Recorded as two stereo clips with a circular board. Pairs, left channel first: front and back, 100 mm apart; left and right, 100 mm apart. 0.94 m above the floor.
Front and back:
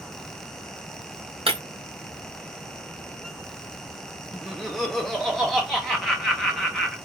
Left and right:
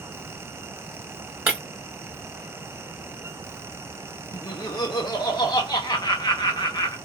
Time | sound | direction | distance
1.5 | breaking glass | 160° right | 1.9 m
4.3 | laughter | 90° left | 1.0 m